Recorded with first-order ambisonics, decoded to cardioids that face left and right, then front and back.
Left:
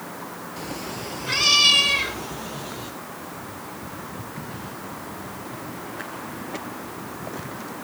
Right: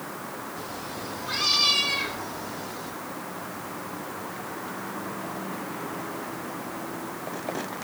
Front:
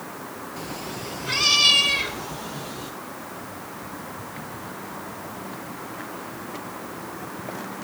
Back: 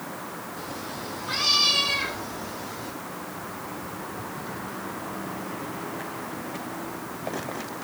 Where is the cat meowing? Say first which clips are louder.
Left 2 dB, front 3 dB; 50° left, 3.5 m.